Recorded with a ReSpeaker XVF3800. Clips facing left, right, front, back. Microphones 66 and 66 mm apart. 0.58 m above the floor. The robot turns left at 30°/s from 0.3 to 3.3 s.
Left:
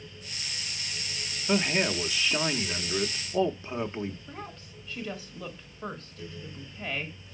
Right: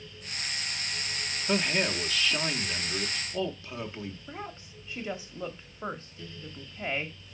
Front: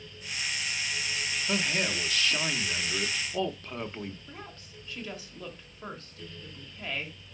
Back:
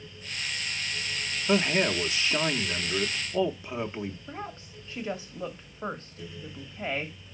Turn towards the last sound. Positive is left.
turn(degrees=-135)